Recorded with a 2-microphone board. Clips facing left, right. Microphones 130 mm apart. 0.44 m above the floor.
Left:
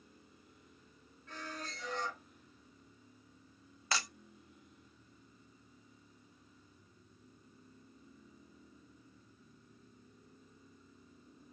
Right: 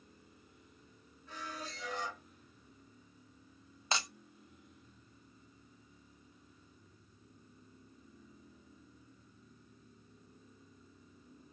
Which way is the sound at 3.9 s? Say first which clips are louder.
Right 1 dB; 20° right (ahead or behind).